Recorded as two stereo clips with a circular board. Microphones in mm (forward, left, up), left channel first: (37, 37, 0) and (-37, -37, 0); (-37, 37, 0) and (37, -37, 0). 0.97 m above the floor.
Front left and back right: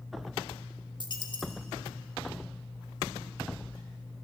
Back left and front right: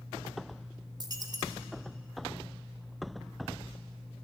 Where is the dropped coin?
5° left, 1.2 m.